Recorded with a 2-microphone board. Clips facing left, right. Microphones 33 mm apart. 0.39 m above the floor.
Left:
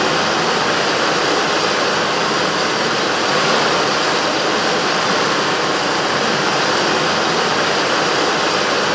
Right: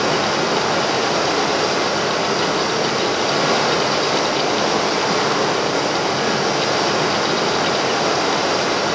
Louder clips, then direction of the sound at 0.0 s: Left 2 dB; 70° left (ahead or behind).